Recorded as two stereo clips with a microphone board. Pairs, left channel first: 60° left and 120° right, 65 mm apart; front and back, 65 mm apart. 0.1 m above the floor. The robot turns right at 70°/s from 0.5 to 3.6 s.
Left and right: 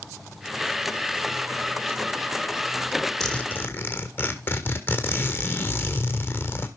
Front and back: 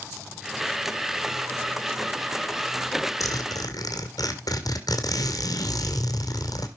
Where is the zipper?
25° right, 1.7 m; by 6.7 s 5° left, 1.7 m.